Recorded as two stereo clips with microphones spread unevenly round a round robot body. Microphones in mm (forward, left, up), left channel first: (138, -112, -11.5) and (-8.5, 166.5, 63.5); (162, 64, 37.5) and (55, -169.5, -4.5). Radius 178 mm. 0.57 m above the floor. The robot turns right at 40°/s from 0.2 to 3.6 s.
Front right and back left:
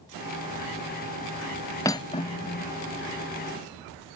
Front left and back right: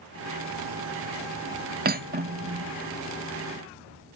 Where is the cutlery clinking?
125° right; by 2.7 s 90° right.